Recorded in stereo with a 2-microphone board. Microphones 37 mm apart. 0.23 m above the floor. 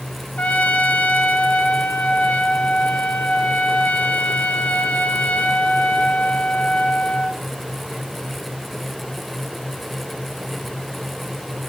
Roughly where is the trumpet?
Left.